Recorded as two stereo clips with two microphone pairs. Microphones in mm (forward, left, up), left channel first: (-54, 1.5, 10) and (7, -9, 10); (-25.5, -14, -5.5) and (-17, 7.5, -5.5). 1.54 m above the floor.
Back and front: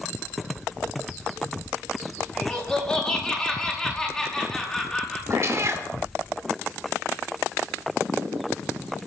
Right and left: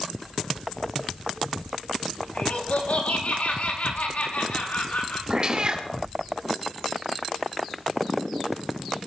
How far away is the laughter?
About 6 m.